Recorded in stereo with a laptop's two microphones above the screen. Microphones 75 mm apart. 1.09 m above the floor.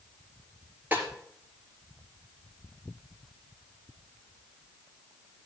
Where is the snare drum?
20° right (ahead or behind), 3.5 m.